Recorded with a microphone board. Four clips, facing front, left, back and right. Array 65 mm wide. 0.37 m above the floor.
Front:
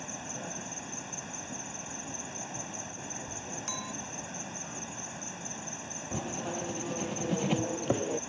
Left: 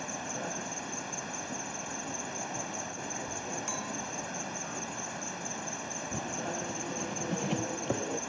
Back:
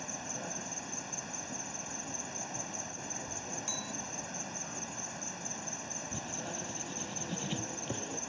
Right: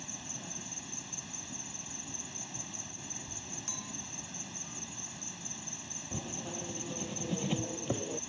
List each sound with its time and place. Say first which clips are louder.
0.0 s an insect: left 10 dB, front 1 dB; 85° left
3.7 s a clink: left 9 dB, front 3 dB; 40° left
6.1 s writing: left 4 dB, front 8 dB; 20° left